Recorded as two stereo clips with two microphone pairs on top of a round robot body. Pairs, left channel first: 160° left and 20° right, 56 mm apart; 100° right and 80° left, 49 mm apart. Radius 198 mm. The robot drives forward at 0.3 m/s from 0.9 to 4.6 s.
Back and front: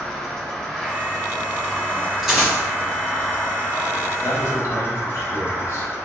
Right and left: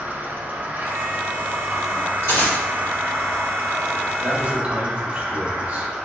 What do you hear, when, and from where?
0.0 s an insect: 75° left, 1.3 m; by 6.0 s 135° left, 1.6 m
2.2 s a dropped coin: 105° right, 1.8 m; by 2.6 s 110° right, 1.9 m
4.2 s a man speaking: 130° left, 1.4 m; by 5.9 s 135° left, 1.4 m